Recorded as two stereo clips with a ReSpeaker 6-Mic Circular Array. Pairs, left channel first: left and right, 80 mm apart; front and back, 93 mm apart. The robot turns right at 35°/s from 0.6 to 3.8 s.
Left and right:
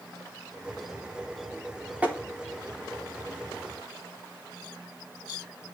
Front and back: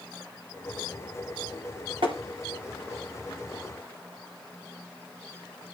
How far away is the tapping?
About 3.5 m.